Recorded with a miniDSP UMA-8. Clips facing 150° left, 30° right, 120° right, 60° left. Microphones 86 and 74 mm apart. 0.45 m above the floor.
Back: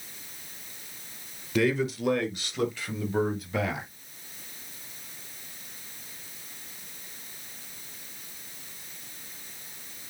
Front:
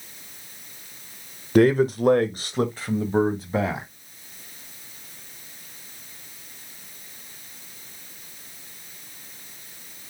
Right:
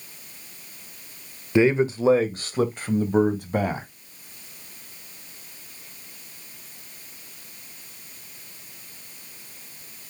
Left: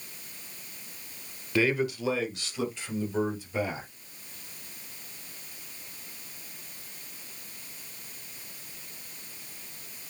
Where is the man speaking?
55° right, 1.2 m; by 3.9 s 90° right, 2.5 m.